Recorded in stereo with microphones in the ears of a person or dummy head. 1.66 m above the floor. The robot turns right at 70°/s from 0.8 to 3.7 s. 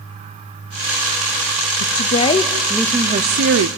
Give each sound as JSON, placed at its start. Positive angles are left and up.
{"t": 1.8, "sound": "a woman speaking", "azimuth_deg": 120, "distance_m": 0.7}